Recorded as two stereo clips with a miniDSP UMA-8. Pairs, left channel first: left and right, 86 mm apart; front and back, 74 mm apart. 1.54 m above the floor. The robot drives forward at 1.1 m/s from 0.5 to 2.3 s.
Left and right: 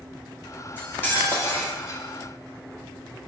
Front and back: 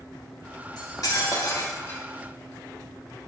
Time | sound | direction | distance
0.8 | cutlery clinking | 20° left | 2 m